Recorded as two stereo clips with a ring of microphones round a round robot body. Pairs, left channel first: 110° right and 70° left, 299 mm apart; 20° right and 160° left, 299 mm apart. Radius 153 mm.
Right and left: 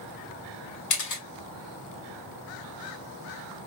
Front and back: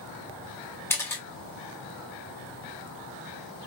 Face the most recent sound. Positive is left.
turn(degrees=-105)